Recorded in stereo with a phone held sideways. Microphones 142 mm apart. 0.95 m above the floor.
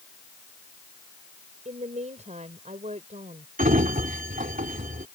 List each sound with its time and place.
1.6 s a woman speaking: 55° right (ahead or behind)
3.6 s a sliding door: 75° right (ahead or behind)